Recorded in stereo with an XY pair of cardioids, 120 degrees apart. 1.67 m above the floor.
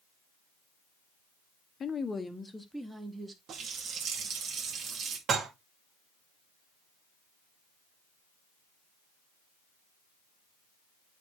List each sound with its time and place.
1.8 s a woman speaking: 40° left, 1.0 m; by 3.4 s 20° right, 1.8 m
3.5 s a running tap: 55° right, 2 m
5.3 s dishes clattering: 50° right, 2.5 m